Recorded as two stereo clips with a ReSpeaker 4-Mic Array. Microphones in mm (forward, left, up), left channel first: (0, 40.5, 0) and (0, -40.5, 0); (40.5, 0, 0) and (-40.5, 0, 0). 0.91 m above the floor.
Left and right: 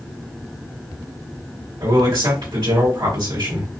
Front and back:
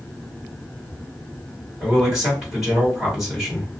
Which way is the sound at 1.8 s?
95° right.